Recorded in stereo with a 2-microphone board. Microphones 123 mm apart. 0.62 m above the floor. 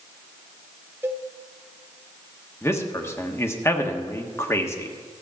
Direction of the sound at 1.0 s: 20° right (ahead or behind).